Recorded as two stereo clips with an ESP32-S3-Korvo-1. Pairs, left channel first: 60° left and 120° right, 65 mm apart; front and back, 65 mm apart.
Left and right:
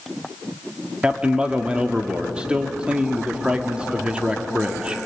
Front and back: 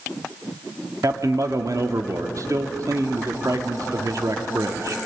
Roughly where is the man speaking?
Behind.